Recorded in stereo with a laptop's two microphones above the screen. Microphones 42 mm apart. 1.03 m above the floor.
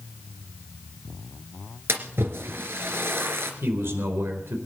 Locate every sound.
1.9 s a splash: 70° right (ahead or behind), 2.5 m
3.6 s a man speaking: 65° right (ahead or behind), 4.5 m